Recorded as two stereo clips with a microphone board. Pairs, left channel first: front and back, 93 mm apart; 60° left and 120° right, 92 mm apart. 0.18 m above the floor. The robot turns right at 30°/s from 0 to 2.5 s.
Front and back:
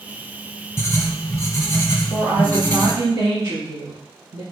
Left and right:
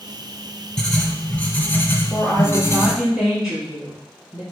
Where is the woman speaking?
145° left, 1.8 m; by 4.4 s 155° left, 1.8 m.